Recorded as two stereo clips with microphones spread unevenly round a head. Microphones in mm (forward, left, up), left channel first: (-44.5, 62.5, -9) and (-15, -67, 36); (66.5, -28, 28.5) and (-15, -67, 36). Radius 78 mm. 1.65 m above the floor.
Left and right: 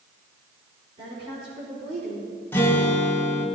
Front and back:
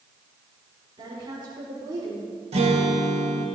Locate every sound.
1.0 s a woman speaking: 120° right, 6 m; by 2.3 s 110° right, 5 m
2.5 s a guitar: 175° right, 2 m